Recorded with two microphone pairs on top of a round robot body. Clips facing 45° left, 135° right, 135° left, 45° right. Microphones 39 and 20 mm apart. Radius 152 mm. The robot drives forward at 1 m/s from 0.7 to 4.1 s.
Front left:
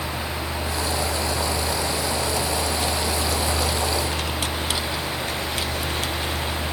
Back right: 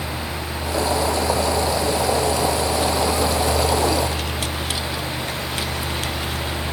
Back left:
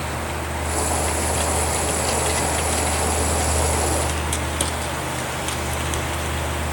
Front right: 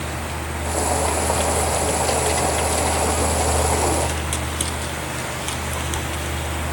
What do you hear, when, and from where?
Only background noise.